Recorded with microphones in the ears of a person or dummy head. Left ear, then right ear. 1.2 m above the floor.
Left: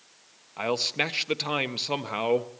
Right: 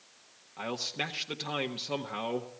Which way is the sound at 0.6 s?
35° left (ahead or behind).